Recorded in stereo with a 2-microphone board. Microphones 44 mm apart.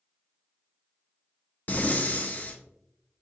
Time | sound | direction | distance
1.7 | breathing | 40° left (ahead or behind) | 0.5 m